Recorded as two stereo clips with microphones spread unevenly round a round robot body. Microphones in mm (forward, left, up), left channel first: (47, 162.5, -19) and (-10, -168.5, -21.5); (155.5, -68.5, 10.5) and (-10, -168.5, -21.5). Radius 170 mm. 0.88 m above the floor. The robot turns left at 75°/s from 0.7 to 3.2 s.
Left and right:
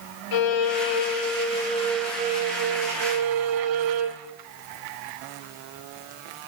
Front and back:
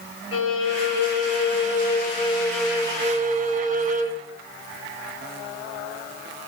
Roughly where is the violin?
Left.